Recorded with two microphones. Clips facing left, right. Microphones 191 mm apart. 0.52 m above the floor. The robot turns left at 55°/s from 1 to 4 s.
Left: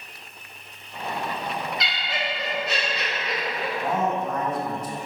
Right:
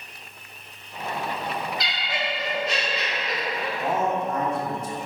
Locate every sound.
1.8 s laughter: 80° right, 1.1 m; by 3.7 s 175° left, 1.1 m
3.8 s a man speaking: 20° right (ahead or behind), 0.8 m; by 5.0 s 30° right (ahead or behind), 0.8 m